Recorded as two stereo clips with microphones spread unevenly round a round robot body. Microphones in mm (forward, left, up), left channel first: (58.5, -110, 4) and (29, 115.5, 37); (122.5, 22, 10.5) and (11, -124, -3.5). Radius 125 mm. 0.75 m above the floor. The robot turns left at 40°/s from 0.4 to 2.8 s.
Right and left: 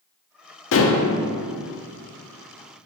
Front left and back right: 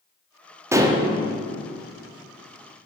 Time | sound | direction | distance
0.7 | dishes clattering | 50° right | 0.7 m